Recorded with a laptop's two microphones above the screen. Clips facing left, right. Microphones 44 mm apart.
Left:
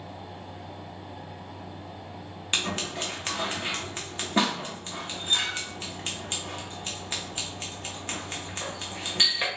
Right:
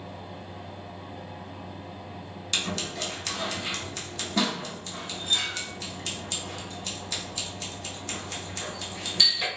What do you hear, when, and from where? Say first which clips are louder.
0.0 s a fan: even; 40° right (ahead or behind), 1.4 m
2.5 s scissors: left 1 dB; 30° left (ahead or behind), 0.7 m